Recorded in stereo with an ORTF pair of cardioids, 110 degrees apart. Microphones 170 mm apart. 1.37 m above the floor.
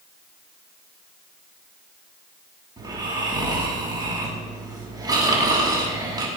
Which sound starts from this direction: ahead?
Snoring, at 2.8 s.